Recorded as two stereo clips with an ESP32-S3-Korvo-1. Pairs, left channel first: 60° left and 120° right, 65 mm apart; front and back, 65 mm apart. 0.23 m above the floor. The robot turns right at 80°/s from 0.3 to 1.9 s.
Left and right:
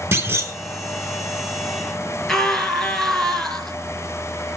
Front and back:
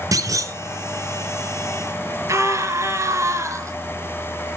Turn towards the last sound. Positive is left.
turn(degrees=145)